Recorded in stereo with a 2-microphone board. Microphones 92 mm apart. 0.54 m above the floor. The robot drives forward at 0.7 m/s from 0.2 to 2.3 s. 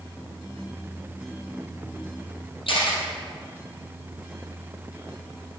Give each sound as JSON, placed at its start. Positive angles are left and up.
{"t": 2.7, "sound": "a camera shutter", "side_deg": 75, "distance_m": 3.0}